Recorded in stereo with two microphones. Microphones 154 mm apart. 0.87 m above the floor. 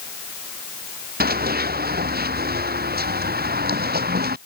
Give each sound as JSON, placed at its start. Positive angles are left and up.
{"t": 1.2, "sound": "running footsteps", "side_deg": -80}